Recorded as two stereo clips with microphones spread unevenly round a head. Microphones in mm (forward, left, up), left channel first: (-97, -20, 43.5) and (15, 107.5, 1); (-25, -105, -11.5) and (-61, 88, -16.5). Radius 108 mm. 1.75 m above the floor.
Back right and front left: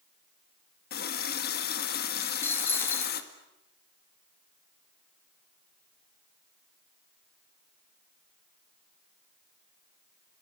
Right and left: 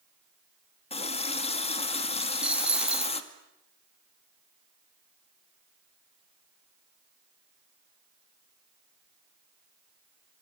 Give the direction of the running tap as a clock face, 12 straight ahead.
5 o'clock.